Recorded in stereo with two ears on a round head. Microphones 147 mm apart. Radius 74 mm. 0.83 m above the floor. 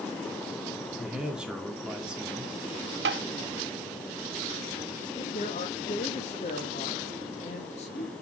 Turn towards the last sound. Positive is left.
turn(degrees=40)  # may be behind; listen again after turning